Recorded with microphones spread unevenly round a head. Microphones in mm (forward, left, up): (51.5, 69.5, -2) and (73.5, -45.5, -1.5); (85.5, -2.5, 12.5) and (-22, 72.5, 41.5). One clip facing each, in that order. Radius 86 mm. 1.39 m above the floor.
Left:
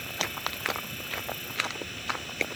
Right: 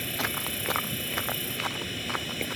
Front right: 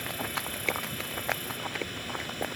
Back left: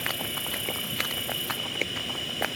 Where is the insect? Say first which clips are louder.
Right 2 dB, even; 140° right.